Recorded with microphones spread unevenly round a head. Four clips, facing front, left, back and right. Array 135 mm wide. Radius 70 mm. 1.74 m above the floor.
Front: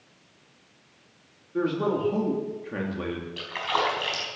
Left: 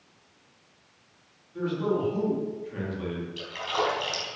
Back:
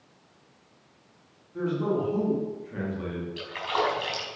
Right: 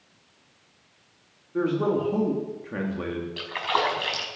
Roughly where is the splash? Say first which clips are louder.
Right 3 dB, even; ahead right.